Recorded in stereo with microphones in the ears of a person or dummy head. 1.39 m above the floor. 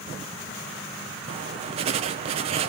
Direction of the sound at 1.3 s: 30° right (ahead or behind).